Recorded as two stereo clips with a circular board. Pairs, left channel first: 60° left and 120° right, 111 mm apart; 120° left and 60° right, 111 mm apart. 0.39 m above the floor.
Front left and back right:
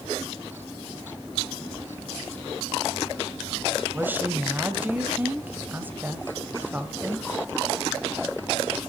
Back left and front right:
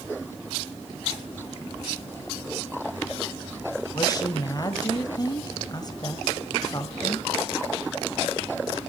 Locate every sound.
3.9 s a woman speaking: 170° left, 1.6 m